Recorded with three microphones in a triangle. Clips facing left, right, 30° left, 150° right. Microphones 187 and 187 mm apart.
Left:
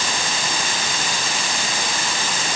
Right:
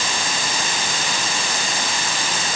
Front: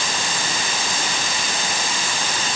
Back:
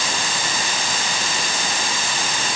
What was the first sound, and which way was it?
Only background noise.